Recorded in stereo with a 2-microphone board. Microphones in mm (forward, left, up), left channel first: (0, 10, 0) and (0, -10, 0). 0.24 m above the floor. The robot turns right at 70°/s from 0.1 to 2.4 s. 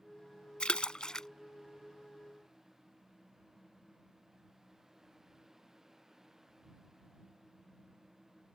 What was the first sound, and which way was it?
A splash, 65° left (ahead or behind).